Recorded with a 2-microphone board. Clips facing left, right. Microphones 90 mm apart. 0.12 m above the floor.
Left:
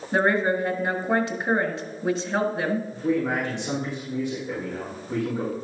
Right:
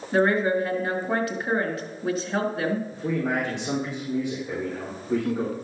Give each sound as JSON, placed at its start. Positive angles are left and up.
{"t": 0.1, "sound": "a woman speaking", "side_deg": 25, "distance_m": 1.7}
{"t": 2.9, "sound": "a man speaking", "side_deg": -10, "distance_m": 4.5}